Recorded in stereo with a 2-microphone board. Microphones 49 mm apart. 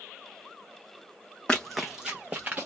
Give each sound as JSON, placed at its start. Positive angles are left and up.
{"t": 1.5, "sound": "running footsteps", "side_deg": 15, "distance_m": 0.6}